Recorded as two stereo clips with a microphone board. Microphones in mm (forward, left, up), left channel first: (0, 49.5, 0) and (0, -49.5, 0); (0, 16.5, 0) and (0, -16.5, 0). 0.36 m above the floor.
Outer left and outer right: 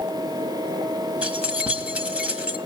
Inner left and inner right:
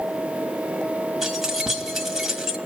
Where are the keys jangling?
10° right (ahead or behind), 1.4 m.